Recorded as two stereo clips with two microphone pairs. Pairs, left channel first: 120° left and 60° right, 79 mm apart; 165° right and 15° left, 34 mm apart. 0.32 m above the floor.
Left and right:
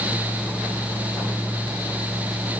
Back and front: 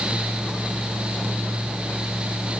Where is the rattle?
No rattle in this recording.